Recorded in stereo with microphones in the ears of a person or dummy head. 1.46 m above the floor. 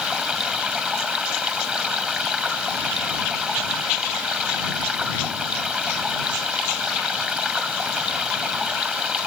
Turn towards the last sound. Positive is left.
turn(degrees=-5)  # may be behind; listen again after turning